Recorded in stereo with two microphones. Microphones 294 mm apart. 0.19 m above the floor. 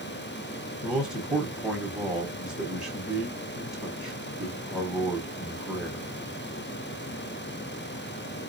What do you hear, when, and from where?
0.8 s a man speaking: centre (ahead or behind), 1.5 m